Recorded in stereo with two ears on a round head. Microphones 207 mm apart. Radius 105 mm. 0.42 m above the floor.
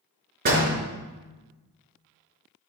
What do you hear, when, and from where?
0.5 s a door slam: 45° right (ahead or behind), 4 m